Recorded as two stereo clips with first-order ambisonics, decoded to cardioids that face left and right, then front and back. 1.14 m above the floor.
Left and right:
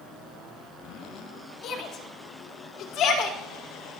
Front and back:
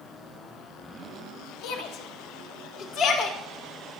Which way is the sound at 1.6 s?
35° left.